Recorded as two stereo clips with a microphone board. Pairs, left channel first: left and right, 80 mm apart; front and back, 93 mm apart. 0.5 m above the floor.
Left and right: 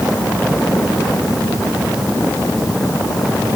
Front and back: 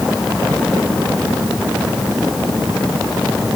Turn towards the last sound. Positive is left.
No sound to turn to.